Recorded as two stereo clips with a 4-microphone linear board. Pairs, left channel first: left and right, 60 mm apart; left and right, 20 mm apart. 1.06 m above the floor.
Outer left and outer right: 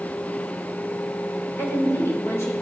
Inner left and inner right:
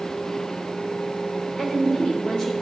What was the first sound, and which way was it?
A woman speaking, 50° left (ahead or behind).